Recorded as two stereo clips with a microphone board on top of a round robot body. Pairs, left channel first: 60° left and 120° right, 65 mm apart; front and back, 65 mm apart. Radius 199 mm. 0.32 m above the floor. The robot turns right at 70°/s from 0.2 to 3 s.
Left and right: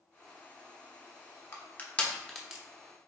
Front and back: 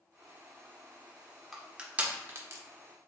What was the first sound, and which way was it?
Crushing, 90° left.